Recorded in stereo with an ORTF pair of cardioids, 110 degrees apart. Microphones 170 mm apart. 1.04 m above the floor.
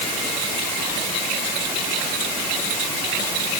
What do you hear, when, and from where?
Only background noise.